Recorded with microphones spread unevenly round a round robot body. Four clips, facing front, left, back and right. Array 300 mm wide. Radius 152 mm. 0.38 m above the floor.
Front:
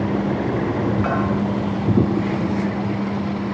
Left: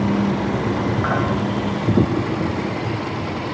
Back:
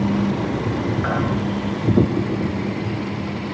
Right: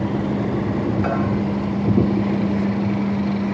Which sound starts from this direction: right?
A bell, at 1.0 s.